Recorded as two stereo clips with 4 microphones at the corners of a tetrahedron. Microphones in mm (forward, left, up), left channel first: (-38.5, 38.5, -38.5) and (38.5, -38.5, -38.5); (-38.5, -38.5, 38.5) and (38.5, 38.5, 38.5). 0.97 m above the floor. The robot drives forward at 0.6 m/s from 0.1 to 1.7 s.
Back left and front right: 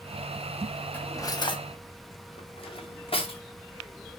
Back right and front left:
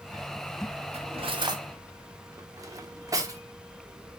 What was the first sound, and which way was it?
Cutlery clinking, 65° left.